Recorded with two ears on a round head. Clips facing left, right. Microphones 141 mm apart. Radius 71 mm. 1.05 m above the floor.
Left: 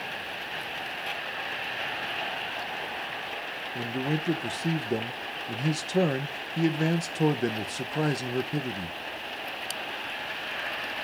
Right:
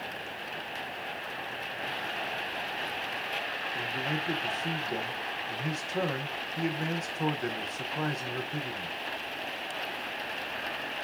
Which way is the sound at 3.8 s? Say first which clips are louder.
Left 6 dB; 35° left (ahead or behind).